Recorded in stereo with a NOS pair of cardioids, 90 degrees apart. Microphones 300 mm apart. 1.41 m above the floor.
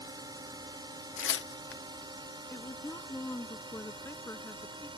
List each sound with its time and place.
0.0 s a drone: 15° right
1.2 s tearing paper: 45° left
2.5 s a woman speaking: 10° left